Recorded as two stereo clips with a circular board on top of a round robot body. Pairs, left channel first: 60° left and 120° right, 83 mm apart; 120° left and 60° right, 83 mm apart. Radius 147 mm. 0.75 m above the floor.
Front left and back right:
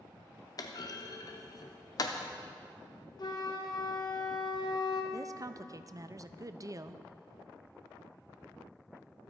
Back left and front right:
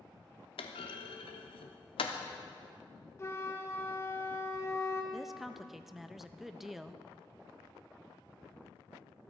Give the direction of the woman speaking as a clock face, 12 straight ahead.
5 o'clock.